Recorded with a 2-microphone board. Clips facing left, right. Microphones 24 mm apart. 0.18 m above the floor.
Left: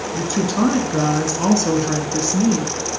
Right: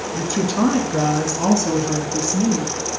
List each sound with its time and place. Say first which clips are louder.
0.1 s a woman speaking: left 1 dB; 5° right (ahead or behind), 2.5 m; by 3.0 s 50° left (ahead or behind), 2.5 m